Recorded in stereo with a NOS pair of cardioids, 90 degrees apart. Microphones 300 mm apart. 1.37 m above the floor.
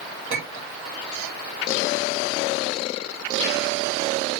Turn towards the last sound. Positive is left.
turn(degrees=-45)